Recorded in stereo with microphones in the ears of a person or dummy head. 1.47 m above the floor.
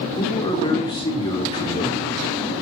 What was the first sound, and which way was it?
A man speaking, 25° left (ahead or behind).